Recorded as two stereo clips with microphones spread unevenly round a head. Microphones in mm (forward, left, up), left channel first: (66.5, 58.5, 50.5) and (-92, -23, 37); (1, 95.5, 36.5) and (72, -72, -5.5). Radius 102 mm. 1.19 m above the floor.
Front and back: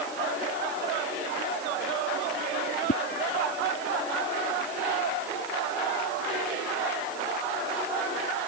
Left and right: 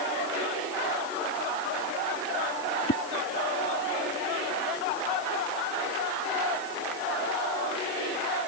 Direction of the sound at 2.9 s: 75° left.